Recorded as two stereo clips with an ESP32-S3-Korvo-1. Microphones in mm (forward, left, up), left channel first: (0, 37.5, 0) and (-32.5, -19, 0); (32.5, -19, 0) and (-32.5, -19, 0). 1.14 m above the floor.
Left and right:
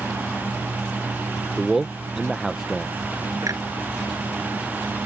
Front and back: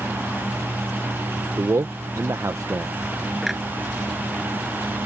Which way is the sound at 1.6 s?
155° left.